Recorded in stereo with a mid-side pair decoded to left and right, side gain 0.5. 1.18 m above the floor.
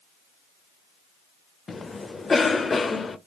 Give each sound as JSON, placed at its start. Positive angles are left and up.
{"t": 1.7, "sound": "a cough", "azimuth_deg": 30, "distance_m": 0.6}